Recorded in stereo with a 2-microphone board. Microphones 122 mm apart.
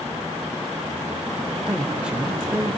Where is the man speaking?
10° right (ahead or behind), 0.8 m.